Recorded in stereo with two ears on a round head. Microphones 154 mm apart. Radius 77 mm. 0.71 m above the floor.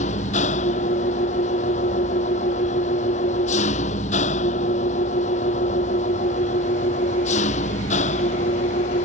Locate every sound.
0.0 s an engine running: 40° left (ahead or behind)